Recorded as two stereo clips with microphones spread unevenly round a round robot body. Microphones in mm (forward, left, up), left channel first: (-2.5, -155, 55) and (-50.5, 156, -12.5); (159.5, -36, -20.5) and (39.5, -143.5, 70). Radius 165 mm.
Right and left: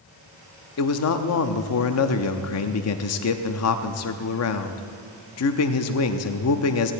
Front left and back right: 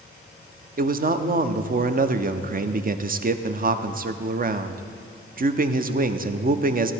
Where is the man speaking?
85° right, 0.8 m.